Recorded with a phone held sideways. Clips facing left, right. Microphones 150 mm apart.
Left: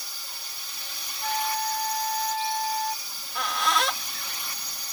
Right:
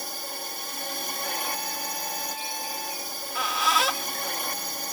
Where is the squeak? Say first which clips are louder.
Right 2 dB; 5° right (ahead or behind).